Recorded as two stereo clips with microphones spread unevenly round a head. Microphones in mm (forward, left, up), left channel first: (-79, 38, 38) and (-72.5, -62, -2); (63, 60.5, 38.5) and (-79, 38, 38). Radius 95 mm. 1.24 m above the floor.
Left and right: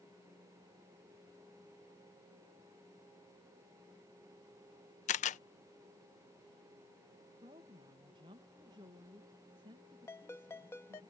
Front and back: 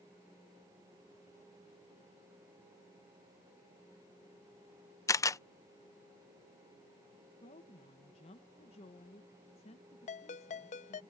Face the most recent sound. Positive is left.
turn(degrees=40)